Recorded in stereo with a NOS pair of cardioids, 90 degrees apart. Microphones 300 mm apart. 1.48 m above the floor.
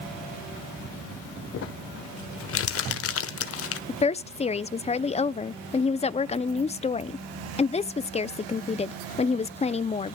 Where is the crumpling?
50° left, 1.2 m.